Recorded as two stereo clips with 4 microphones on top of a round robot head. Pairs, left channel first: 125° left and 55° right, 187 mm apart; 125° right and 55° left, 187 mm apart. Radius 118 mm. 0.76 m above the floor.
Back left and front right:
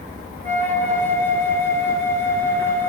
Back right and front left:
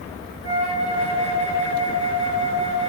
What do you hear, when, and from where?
0.4 s a flute: 45° left, 7.5 m